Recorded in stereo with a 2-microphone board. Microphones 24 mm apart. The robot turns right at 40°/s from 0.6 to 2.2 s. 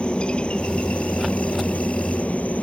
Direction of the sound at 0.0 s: 45° left.